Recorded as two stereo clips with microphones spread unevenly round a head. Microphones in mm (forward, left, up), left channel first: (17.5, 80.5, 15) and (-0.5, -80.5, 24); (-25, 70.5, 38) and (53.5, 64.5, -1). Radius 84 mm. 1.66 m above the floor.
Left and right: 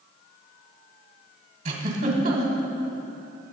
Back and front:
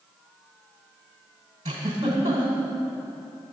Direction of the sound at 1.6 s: 80° right.